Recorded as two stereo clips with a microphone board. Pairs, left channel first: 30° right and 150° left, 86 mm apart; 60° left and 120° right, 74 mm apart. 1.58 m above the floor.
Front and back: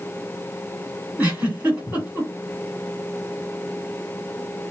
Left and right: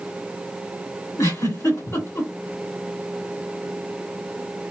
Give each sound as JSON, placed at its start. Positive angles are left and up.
{"t": 1.2, "sound": "a giggle", "azimuth_deg": 85, "distance_m": 2.0}